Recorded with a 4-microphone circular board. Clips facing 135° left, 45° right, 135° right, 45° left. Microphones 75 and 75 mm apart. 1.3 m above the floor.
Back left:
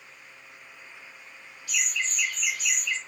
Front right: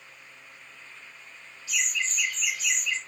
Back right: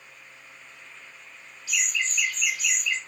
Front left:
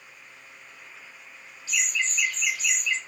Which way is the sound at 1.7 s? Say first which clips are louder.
Even, front left 1 dB; 100° left.